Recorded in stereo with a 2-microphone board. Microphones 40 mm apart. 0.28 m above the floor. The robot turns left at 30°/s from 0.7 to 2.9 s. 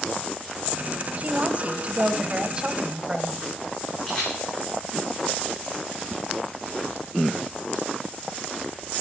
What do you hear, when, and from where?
1.2 s a woman speaking: 90° right, 1.0 m; by 3.5 s 140° right, 1.0 m
4.1 s a camera shutter: 15° left (ahead or behind), 8 m